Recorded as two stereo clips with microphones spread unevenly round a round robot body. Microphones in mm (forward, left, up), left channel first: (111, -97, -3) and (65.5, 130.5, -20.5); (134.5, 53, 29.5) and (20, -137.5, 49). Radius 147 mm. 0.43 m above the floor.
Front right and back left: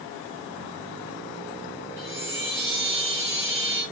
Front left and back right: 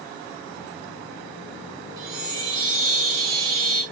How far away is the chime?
About 5.5 m.